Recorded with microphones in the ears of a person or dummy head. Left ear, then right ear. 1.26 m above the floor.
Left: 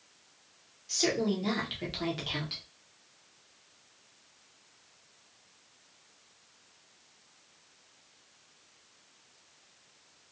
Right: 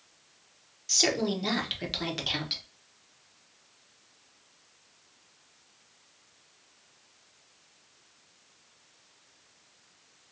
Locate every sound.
0.9 s a woman speaking: 25° right (ahead or behind), 1.0 m